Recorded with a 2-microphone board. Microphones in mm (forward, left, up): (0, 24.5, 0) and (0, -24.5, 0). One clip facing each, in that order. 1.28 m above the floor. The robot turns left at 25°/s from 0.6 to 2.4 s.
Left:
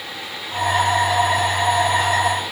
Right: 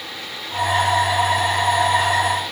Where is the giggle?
No giggle in this recording.